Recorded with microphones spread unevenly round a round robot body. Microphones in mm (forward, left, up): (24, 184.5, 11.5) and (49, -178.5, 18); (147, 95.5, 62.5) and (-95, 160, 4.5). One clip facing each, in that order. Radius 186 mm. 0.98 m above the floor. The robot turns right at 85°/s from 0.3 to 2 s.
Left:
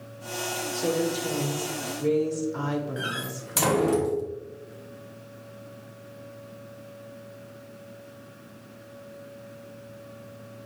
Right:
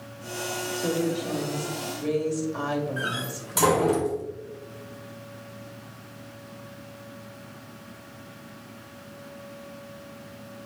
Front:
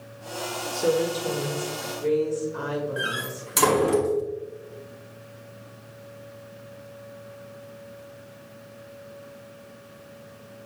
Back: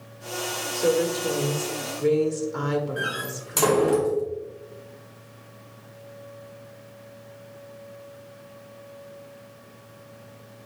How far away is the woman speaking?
About 1.9 m.